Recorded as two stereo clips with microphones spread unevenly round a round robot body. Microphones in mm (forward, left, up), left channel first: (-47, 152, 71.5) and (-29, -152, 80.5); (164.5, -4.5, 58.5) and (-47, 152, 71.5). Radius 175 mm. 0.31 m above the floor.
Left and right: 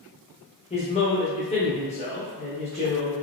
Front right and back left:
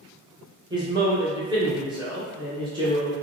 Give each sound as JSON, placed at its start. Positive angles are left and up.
{"t": 0.7, "sound": "a man speaking", "azimuth_deg": 85, "distance_m": 0.9}